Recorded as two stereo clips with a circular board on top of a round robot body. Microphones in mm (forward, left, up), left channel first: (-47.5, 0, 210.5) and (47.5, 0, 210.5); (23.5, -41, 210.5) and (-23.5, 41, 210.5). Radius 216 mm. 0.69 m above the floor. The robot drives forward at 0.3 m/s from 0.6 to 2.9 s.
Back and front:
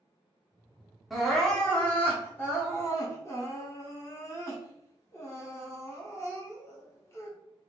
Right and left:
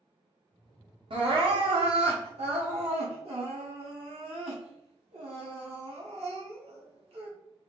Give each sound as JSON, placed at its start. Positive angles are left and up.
{"t": 1.1, "sound": "crying", "azimuth_deg": 90, "distance_m": 1.0}